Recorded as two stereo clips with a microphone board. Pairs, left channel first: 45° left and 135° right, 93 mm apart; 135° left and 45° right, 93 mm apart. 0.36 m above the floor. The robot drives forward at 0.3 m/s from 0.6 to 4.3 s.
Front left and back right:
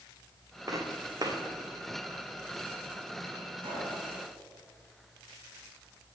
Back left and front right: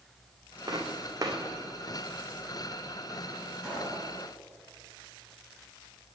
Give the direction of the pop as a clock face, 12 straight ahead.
4 o'clock.